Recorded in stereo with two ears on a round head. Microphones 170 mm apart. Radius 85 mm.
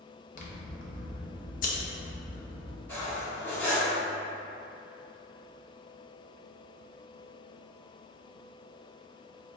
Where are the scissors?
50° left (ahead or behind), 0.7 m.